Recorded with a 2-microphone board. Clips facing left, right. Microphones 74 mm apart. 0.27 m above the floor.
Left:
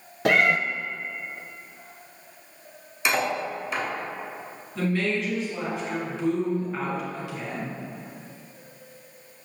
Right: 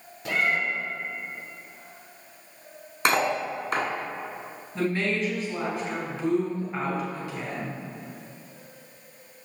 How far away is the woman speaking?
About 2.5 m.